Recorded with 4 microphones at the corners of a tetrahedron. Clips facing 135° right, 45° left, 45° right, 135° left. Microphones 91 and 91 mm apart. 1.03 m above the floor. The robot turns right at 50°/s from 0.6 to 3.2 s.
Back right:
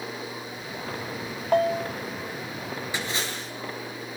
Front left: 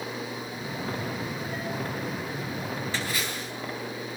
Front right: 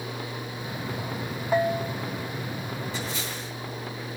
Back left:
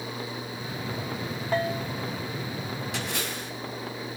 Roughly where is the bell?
Behind right.